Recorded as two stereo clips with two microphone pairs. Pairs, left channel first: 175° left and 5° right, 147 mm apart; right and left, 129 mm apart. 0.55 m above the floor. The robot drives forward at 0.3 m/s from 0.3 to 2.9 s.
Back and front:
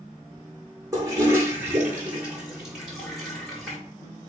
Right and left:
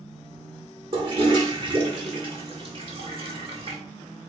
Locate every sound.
0.9 s a toilet flushing: 55° left, 1.8 m; by 3.8 s 80° left, 1.6 m